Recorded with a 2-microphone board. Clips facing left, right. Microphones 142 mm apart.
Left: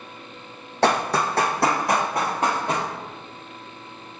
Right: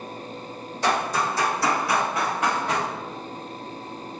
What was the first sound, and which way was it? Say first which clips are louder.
Running footsteps: left 3 dB; 75° left (ahead or behind).